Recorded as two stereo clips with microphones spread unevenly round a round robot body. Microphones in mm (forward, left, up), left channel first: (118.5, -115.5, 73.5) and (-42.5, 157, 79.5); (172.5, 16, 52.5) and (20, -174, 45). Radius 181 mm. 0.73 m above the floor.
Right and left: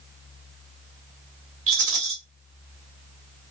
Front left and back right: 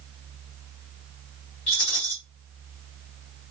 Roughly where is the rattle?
Left.